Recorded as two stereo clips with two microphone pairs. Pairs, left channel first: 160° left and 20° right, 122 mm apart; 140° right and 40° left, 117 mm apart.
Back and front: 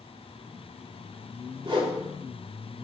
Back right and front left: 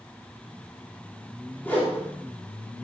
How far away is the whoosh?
About 2.5 m.